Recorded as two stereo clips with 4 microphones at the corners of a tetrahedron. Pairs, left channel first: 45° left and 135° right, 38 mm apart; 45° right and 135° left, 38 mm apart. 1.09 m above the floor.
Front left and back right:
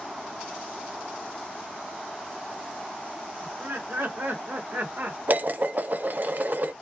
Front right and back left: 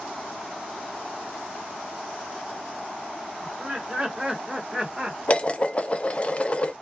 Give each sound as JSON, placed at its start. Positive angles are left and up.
{"t": 3.4, "sound": "laughter", "azimuth_deg": -155, "distance_m": 2.0}
{"t": 5.3, "sound": "dishes clattering", "azimuth_deg": -100, "distance_m": 0.5}